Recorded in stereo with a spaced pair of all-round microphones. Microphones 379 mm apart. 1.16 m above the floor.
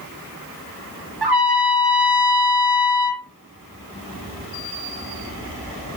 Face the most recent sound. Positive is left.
turn(degrees=-80)